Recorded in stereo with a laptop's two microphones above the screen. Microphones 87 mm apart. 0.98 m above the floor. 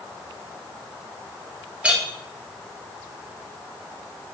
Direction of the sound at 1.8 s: 15° right (ahead or behind).